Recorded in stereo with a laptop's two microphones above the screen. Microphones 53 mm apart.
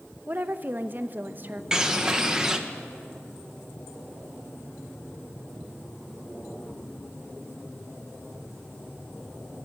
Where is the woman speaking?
40° right (ahead or behind), 0.6 m.